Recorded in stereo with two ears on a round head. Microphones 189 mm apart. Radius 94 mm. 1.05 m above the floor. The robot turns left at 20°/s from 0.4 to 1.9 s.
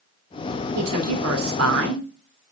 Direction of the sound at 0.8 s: 85° right.